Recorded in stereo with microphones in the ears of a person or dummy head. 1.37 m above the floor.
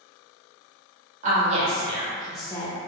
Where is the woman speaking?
45° right (ahead or behind), 1.3 m; by 2.8 s 30° left (ahead or behind), 0.6 m.